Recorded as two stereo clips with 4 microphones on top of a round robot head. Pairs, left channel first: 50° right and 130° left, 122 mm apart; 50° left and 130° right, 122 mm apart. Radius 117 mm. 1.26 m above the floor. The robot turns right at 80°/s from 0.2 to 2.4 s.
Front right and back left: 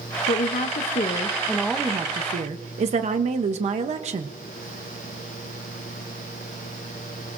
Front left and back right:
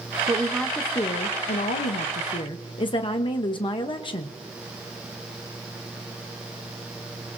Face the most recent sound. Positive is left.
turn(degrees=100)